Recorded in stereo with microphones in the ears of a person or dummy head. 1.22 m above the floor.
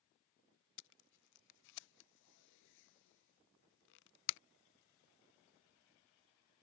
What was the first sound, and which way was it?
Tape being pulled, 65° left (ahead or behind).